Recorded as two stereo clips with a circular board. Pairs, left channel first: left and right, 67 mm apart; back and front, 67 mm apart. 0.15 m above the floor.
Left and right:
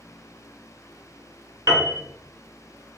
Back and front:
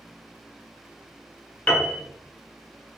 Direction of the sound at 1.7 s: 125° right.